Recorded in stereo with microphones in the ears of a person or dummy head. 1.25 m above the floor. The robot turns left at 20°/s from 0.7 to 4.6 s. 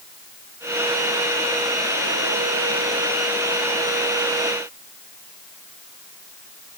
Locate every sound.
Only background noise.